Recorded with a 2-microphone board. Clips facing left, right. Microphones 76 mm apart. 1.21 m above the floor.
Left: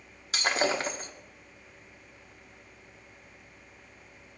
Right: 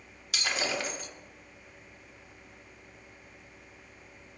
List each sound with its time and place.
0.3 s breaking glass: 40° left (ahead or behind), 0.9 m